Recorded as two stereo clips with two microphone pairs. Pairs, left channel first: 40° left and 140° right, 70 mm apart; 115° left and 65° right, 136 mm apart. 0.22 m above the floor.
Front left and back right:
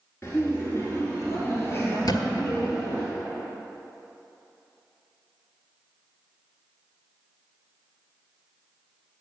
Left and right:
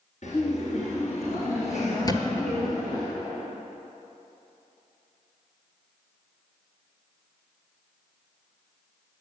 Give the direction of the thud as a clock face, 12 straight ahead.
10 o'clock.